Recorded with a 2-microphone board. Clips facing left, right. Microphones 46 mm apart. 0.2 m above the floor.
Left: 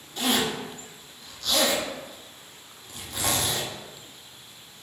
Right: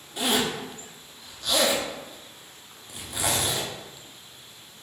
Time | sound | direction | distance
0.2 | a zipper | 15° right (ahead or behind) | 0.9 m